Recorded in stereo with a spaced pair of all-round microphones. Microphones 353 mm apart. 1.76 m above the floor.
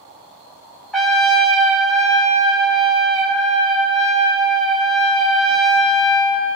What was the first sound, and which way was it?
A trumpet, centre (ahead or behind).